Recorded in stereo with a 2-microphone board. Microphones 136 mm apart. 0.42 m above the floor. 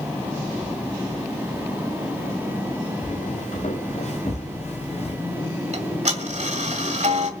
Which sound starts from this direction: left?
Footsteps, at 3.0 s.